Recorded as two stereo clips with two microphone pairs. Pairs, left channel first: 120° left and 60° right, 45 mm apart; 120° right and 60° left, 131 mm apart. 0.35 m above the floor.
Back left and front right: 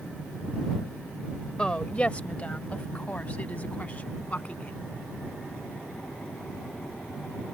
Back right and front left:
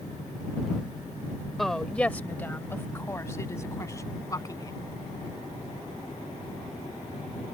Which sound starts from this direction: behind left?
A woman speaking, at 1.6 s.